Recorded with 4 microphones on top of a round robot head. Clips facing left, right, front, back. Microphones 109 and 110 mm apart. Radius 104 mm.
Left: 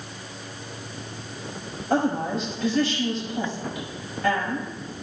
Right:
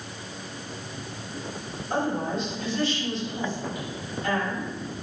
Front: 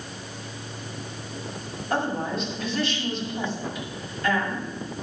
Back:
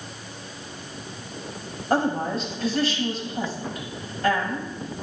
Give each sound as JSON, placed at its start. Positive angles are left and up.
{"t": 1.9, "sound": "a woman speaking", "azimuth_deg": 135, "distance_m": 6.0}